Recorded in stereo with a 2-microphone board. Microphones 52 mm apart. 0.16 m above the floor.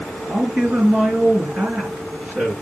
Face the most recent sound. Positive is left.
turn(degrees=-35)  # may be behind; listen again after turning